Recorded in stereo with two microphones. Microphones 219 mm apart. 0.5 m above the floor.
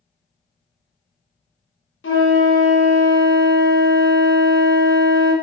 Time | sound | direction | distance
2.0 | a flute | 65° left (ahead or behind) | 0.6 m